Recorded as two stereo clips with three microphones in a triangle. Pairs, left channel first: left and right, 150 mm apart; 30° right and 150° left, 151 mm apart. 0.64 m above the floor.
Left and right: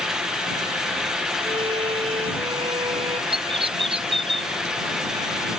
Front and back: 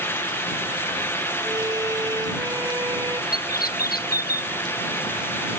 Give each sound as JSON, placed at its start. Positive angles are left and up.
{"t": 1.4, "sound": "a violin", "azimuth_deg": -145}
{"t": 3.3, "sound": "a bird", "azimuth_deg": -35}